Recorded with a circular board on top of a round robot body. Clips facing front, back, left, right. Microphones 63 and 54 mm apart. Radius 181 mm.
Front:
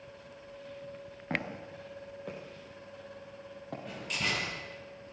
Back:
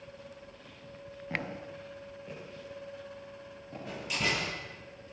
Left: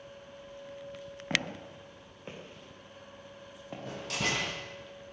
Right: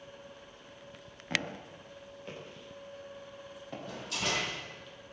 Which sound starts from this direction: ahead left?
Footsteps, at 1.3 s.